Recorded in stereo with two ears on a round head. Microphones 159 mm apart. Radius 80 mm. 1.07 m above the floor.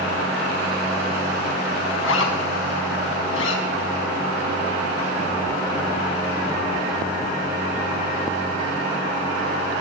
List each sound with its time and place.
2.0 s a zipper: 80° left, 5.5 m